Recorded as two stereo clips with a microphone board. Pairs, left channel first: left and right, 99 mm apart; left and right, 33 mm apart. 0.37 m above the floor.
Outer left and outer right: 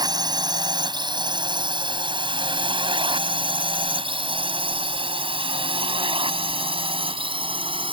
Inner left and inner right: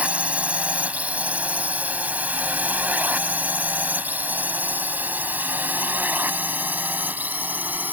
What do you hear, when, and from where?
0.0 s a drone: 45° right (ahead or behind); by 7.9 s 60° right (ahead or behind)